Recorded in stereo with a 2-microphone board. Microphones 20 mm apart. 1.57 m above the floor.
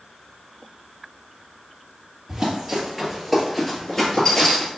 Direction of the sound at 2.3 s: 25° right (ahead or behind).